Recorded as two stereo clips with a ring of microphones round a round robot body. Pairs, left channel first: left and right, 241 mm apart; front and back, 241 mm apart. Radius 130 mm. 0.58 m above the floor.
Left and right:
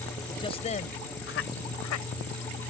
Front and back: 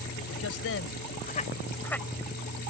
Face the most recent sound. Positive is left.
turn(degrees=90)